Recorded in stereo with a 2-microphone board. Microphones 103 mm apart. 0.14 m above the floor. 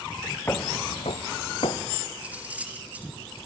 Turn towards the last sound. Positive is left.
turn(degrees=-15)  # may be behind; listen again after turning